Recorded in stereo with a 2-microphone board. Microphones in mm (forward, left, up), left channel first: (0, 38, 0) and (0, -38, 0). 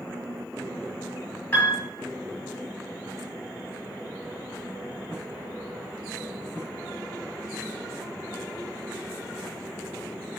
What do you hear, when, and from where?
1.5 s a piano: 25° left (ahead or behind), 1.0 m